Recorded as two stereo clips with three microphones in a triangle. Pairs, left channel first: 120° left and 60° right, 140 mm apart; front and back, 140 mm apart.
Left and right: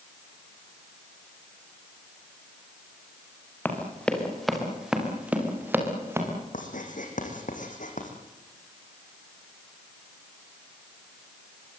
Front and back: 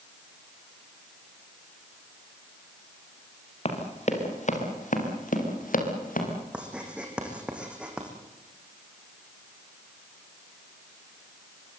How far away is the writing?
About 5 m.